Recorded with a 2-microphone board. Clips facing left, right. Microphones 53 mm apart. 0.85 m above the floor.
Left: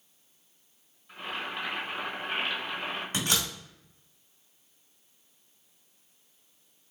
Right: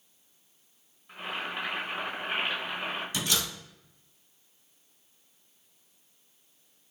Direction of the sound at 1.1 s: 15° right (ahead or behind).